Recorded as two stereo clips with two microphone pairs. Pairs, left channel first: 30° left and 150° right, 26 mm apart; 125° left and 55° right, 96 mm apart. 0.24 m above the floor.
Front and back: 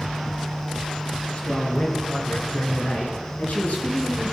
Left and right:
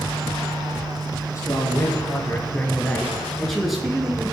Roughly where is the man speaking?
Left.